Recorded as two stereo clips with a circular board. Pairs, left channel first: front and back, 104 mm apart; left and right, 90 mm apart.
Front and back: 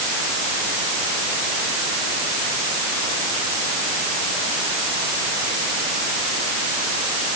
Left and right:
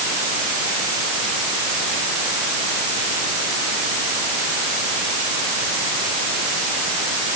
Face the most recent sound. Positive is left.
No sound to turn to.